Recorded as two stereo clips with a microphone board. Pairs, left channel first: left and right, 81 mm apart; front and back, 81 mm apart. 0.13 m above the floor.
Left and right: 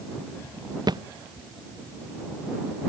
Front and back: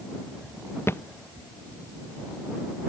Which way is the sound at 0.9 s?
60° right.